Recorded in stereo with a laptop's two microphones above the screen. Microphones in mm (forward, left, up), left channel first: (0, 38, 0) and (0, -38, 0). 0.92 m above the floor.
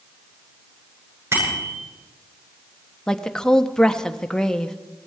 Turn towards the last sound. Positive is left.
turn(degrees=10)  # may be behind; listen again after turning